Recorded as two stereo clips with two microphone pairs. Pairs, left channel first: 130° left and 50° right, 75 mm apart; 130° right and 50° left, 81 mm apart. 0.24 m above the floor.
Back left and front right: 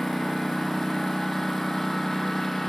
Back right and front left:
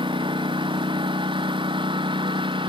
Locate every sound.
0.0 s a lawn mower: 40° left